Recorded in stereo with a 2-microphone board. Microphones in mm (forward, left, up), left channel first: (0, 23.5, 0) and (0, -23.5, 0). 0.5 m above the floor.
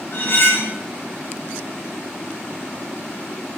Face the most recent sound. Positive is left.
turn(degrees=55)  # may be behind; listen again after turning